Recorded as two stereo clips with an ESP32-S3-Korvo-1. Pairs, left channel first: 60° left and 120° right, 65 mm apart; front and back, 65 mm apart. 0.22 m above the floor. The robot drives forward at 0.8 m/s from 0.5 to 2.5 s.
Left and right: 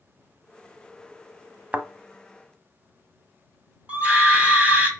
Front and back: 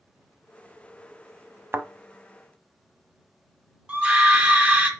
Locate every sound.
1.7 s a thud: 170° right, 0.7 m; by 1.9 s 175° right, 0.7 m
3.9 s a scream: 155° right, 1.3 m